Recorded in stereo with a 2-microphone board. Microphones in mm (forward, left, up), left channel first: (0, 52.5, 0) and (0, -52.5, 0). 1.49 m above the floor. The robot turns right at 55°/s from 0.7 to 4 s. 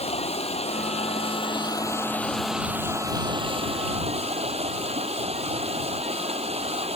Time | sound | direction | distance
0.0 | running water | 85° left | ?